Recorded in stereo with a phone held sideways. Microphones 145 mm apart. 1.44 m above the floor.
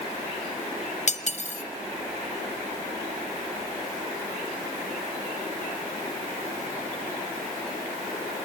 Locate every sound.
1.1 s cutlery clinking: 50° left (ahead or behind), 0.7 m